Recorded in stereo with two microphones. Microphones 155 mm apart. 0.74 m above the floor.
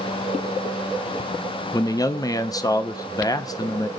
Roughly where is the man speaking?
Left.